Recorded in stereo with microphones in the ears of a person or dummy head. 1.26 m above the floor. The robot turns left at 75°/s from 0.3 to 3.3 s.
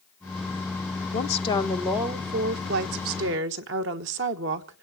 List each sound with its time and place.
1.1 s a woman speaking: 55° left, 1.3 m; by 4.8 s 110° right, 1.3 m